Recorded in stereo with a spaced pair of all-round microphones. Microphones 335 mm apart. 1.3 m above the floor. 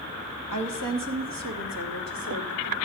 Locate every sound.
0.5 s a woman speaking: 65° right (ahead or behind), 1.8 m; by 2.9 s 80° right, 3 m